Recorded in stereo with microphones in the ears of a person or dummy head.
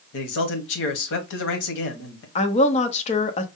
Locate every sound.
0.1 s a man speaking: 70° left (ahead or behind), 1.0 m
2.4 s a woman speaking: 40° left (ahead or behind), 0.8 m